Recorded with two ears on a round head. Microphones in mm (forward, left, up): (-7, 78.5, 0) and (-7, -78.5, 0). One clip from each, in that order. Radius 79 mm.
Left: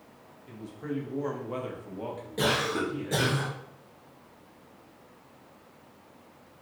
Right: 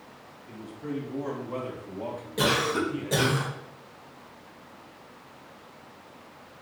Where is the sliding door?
I don't hear a sliding door.